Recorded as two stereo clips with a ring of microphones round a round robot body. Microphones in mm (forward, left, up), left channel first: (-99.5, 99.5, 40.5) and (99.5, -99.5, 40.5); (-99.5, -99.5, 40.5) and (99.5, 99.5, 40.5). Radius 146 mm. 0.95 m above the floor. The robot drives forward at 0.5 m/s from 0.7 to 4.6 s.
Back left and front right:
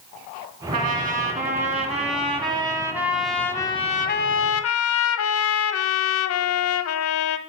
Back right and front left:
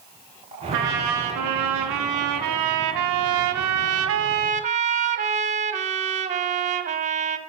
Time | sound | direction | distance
0.7 | a trumpet | 15° left | 1.9 m